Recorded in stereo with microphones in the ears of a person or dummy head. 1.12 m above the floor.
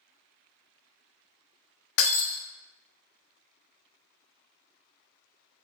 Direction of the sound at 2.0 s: 55° left (ahead or behind).